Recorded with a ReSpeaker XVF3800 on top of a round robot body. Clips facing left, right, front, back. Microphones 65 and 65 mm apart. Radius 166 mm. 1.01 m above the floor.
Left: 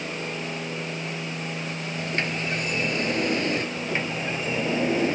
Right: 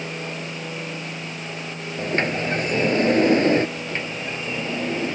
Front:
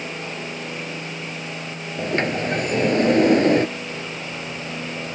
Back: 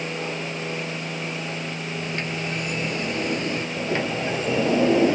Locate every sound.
2.0 s a sliding door: 35° right
3.8 s a sliding door: 165° left